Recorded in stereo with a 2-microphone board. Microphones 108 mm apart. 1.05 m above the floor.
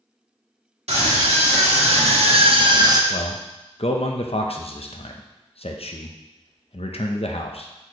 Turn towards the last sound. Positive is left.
turn(degrees=65)  # may be behind; listen again after turning